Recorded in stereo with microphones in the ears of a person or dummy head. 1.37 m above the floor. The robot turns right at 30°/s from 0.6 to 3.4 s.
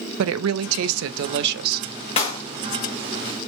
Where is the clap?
35° left (ahead or behind), 1.0 m; by 2.4 s 25° left (ahead or behind), 1.0 m.